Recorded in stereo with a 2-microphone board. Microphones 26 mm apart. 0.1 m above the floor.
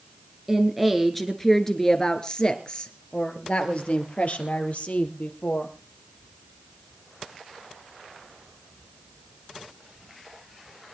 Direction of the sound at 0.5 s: 10° right (ahead or behind).